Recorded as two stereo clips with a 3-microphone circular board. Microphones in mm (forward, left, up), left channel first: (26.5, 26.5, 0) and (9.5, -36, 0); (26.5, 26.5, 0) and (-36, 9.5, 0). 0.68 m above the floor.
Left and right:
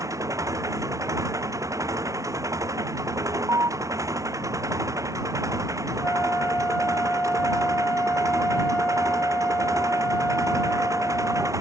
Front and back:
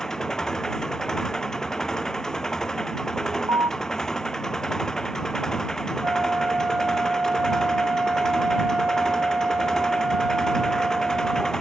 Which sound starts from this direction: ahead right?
An engine running, at 0.0 s.